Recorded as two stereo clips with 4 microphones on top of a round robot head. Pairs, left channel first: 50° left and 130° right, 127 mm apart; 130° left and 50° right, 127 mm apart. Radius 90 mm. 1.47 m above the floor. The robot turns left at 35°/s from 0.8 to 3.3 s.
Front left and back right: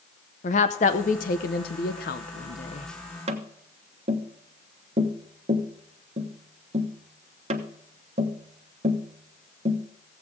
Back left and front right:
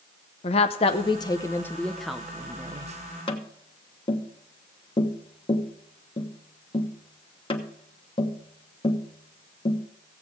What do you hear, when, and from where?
0.4 s a woman speaking: 85° left, 0.7 m; by 2.9 s 10° left, 0.7 m
3.3 s tapping: 175° right, 1.1 m